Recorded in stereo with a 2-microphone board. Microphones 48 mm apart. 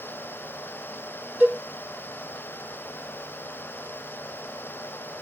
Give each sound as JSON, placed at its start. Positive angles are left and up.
{"t": 1.4, "sound": "a cowbell", "side_deg": -35, "distance_m": 2.0}